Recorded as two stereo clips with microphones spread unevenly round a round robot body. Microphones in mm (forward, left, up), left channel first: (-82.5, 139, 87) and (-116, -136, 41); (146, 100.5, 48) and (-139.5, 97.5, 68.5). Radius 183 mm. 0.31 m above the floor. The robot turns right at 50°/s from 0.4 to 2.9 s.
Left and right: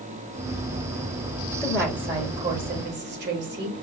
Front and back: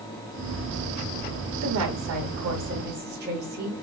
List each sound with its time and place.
1.6 s a woman speaking: 170° left, 1.3 m; by 3.8 s 125° right, 1.3 m